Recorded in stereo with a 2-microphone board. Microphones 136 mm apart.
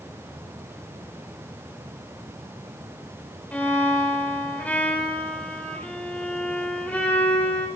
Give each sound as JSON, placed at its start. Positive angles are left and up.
{"t": 3.5, "sound": "a violin", "side_deg": 10, "distance_m": 2.5}